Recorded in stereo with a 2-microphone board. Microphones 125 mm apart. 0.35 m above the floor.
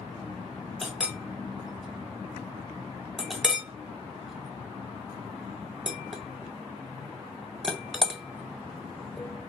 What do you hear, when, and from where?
0.8 s a clink: 5° right (ahead or behind), 0.8 m